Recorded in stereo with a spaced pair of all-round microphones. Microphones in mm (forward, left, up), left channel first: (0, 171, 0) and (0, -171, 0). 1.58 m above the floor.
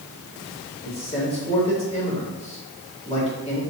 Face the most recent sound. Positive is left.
turn(degrees=15)  # may be behind; listen again after turning